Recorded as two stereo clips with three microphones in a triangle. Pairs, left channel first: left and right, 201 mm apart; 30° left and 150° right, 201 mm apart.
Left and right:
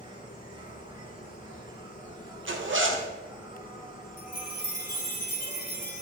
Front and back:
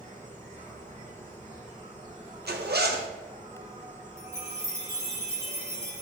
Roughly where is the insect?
Behind right.